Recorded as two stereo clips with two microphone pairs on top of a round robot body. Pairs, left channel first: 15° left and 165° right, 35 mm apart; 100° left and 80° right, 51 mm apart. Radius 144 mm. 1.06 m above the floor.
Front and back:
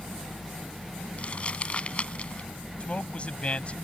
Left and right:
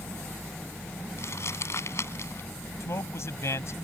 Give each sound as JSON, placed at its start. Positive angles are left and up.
{"t": 1.2, "sound": "crumpling", "azimuth_deg": 70}
{"t": 2.8, "sound": "a man speaking", "azimuth_deg": 70}